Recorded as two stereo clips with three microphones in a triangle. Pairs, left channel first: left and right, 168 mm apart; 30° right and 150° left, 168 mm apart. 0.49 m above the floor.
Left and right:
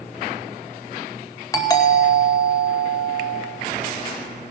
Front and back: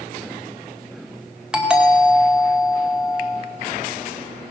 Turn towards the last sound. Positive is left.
turn(degrees=75)